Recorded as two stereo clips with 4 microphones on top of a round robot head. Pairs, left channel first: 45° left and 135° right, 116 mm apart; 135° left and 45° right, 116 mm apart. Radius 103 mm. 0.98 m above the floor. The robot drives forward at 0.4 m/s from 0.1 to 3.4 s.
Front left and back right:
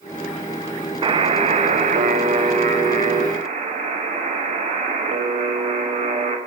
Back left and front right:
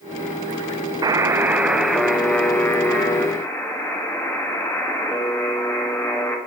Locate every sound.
1.0 s a buzzer: 95° right, 0.5 m; by 6.4 s 155° right, 1.1 m